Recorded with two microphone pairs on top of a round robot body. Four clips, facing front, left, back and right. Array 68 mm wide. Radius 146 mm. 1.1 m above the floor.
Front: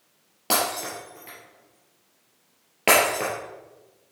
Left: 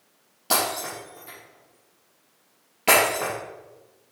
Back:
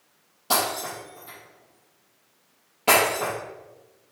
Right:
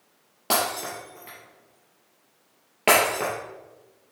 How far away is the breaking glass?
About 3 m.